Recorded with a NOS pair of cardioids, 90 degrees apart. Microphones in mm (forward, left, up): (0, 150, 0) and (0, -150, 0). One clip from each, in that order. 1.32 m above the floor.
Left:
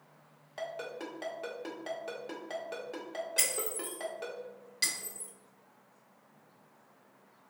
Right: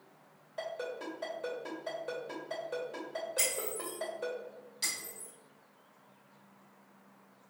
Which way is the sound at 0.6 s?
70° left.